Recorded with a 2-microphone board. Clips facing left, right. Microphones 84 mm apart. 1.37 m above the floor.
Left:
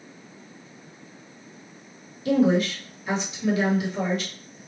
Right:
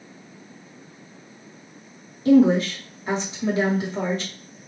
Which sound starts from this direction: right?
A woman speaking, at 2.2 s.